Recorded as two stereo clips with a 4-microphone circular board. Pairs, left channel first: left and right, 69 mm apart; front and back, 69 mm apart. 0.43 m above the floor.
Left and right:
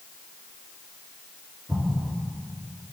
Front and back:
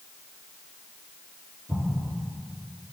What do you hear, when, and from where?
1.7 s an explosion: 140° right, 3.5 m